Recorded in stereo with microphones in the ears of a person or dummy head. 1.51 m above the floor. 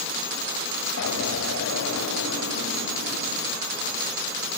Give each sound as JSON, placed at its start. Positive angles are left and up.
{"t": 1.0, "sound": "an explosion", "side_deg": 85, "distance_m": 4.5}